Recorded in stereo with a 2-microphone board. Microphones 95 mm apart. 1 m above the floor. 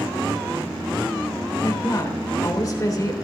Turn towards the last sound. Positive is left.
turn(degrees=40)  # may be behind; listen again after turning